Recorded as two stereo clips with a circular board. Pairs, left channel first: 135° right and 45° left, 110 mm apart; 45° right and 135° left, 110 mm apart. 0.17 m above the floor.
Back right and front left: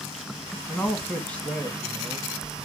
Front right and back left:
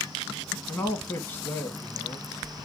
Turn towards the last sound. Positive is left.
turn(degrees=-80)